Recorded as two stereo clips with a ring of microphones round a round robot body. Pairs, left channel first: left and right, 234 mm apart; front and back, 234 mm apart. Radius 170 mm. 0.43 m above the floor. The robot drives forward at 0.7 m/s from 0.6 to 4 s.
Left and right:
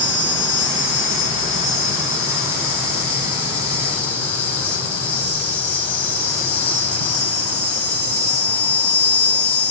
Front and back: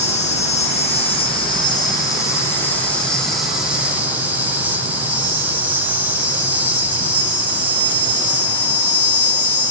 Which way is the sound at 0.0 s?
60° left.